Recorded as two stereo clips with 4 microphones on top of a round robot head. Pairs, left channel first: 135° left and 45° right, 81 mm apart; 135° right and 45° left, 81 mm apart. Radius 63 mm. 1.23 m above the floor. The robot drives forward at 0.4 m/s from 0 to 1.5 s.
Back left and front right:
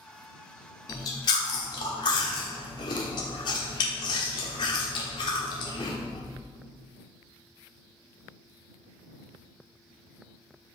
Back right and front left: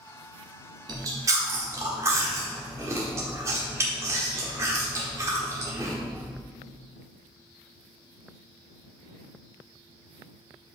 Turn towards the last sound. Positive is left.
turn(degrees=105)